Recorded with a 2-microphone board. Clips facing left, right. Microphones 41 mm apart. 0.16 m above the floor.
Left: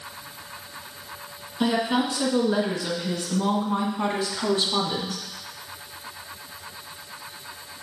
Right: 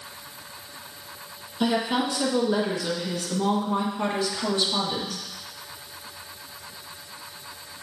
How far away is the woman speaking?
About 2 m.